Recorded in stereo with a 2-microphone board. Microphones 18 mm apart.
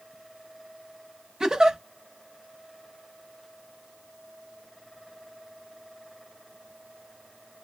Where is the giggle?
35° right (ahead or behind), 0.6 m.